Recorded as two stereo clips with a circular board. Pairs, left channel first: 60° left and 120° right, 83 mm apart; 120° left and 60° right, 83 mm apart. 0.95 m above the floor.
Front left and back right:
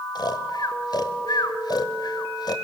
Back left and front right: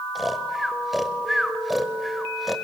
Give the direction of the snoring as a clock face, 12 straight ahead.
11 o'clock.